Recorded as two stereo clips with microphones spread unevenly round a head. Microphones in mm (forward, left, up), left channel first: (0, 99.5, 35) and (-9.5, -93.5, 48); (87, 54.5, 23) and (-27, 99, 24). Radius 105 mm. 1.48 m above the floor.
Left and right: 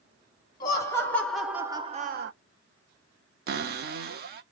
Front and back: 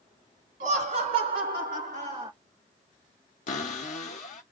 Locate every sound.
0.6 s laughter: 160° left, 1.4 m; by 2.3 s 125° right, 0.6 m
3.5 s a cupboard door: 50° right, 0.7 m